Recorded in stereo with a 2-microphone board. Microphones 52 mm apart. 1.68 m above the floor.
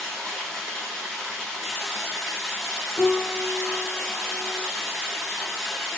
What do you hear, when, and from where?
0.0 s running water: 5° left (ahead or behind), 1.0 m
3.0 s a piano: 20° left (ahead or behind), 0.5 m